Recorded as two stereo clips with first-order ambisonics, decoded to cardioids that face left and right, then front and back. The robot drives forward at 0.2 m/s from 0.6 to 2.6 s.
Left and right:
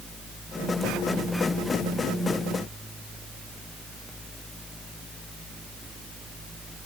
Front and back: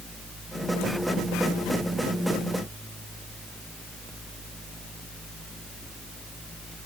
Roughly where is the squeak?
No squeak in this recording.